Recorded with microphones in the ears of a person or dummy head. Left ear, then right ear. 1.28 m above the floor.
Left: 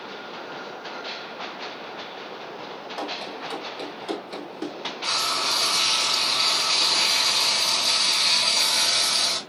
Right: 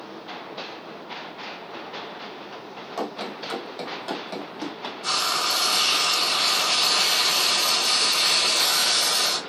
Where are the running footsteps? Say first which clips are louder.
Right 1 dB; 45° right (ahead or behind), 2 m; by 4.9 s 50° right (ahead or behind), 3.5 m.